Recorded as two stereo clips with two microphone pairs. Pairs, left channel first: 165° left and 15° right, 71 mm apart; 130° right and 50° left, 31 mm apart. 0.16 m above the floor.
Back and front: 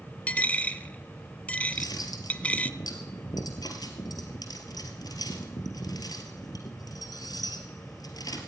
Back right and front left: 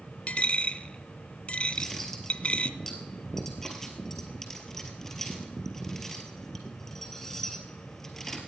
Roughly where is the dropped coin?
Behind right.